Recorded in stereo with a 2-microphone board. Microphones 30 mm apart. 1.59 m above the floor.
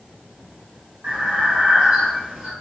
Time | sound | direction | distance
1.0 | breathing | 55° right (ahead or behind) | 1.4 m